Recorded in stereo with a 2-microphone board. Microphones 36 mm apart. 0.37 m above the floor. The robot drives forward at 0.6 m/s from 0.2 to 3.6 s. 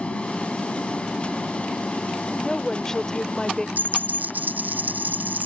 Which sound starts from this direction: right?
A dropped coin, at 3.8 s.